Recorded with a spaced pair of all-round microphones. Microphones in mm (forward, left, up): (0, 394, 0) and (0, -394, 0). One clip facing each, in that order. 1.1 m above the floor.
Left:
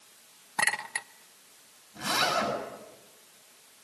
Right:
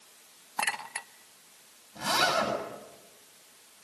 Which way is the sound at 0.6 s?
55° left (ahead or behind).